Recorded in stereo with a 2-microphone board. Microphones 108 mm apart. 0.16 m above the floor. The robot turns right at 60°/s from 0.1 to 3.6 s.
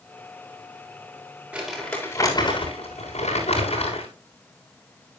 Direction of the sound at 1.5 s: 10° right.